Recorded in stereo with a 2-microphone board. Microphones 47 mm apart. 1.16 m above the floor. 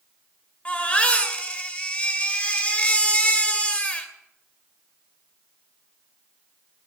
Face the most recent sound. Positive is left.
turn(degrees=30)  # may be behind; listen again after turning